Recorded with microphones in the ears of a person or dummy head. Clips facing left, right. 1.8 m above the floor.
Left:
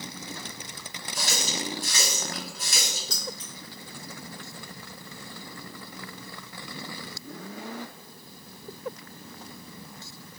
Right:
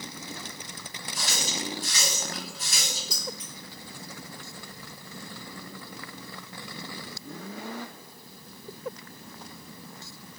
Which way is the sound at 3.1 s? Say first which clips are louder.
Even; 10° right (ahead or behind).